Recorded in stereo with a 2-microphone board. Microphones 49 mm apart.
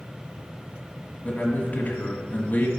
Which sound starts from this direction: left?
A man speaking, at 1.2 s.